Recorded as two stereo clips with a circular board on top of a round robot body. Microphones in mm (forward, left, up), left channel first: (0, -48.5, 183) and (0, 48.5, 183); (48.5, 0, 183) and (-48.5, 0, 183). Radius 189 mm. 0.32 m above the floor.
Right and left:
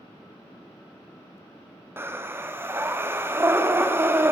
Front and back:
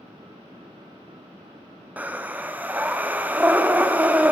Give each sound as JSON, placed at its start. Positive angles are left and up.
{"t": 2.0, "sound": "breathing", "azimuth_deg": 125, "distance_m": 1.4}